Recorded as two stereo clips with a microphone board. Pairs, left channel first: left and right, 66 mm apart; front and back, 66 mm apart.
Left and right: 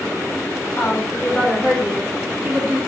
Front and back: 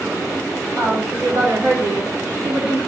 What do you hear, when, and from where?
0.8 s a woman speaking: 145° left, 1.6 m; by 2.8 s 115° right, 0.9 m